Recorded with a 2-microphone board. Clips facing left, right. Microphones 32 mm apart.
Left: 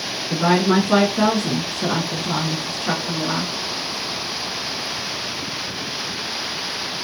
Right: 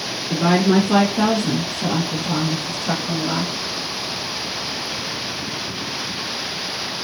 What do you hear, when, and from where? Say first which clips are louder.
0.3 s a woman speaking: right 1 dB; 5° left (ahead or behind), 1.4 m; by 3.5 s 40° left (ahead or behind), 1.8 m